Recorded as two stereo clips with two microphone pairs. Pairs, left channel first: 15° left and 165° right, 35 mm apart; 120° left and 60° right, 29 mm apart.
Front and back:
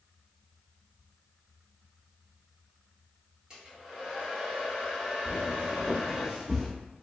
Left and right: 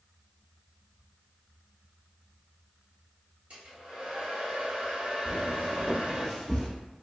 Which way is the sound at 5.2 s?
110° right.